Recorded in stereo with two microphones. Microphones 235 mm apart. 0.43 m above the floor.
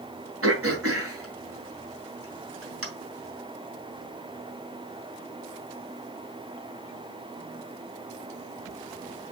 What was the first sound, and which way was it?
Throat clearing, 65° right (ahead or behind).